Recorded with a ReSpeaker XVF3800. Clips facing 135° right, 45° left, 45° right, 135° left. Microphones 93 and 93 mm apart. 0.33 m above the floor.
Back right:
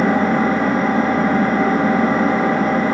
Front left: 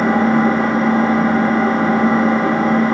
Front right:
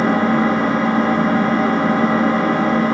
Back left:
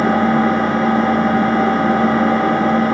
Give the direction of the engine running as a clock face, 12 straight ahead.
8 o'clock.